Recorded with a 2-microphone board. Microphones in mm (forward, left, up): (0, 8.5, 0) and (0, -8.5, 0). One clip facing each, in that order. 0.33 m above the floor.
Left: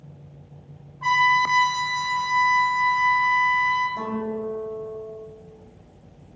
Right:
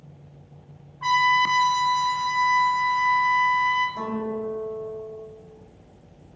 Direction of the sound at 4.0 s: 5° left (ahead or behind).